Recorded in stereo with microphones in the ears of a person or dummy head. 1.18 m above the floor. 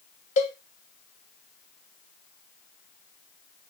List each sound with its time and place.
0.4 s a cowbell: 35° left (ahead or behind), 0.6 m